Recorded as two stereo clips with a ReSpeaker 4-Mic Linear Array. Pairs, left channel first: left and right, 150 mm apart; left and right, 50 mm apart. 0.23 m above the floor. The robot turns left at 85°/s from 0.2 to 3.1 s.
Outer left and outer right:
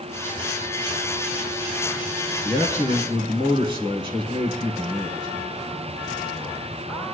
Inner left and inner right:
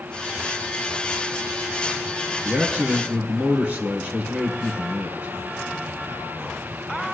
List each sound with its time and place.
2.4 s a man speaking: 85° right, 3 m; by 5.3 s 145° right, 3 m